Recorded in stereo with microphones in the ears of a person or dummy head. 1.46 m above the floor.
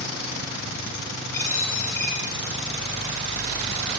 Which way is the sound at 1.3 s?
20° left (ahead or behind).